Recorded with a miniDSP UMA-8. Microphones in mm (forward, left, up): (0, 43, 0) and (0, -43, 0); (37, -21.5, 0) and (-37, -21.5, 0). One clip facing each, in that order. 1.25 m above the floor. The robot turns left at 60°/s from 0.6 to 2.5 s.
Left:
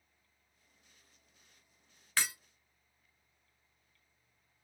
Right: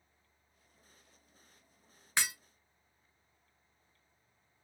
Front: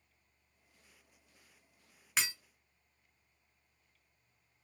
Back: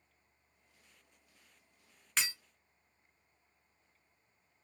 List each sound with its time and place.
2.2 s breaking glass: 70° right, 1.2 m; by 2.3 s 80° right, 1.2 m